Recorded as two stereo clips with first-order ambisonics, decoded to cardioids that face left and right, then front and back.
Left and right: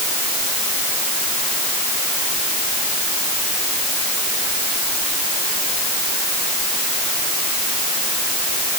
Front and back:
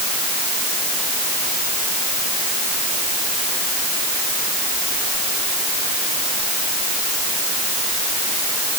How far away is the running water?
I don't hear running water.